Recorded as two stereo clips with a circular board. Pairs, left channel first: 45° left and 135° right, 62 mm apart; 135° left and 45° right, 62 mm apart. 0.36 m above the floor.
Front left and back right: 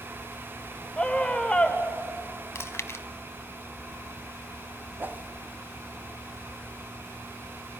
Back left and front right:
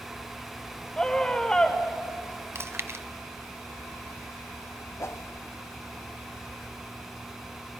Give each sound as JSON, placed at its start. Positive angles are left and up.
{"t": 1.0, "sound": "a scream", "azimuth_deg": 85, "distance_m": 1.4}
{"t": 2.5, "sound": "chewing", "azimuth_deg": 0, "distance_m": 0.7}
{"t": 5.0, "sound": "a whoosh", "azimuth_deg": 170, "distance_m": 0.7}